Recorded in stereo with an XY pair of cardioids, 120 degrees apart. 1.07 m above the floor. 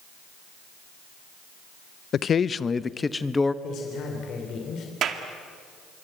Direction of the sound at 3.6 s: 60° left.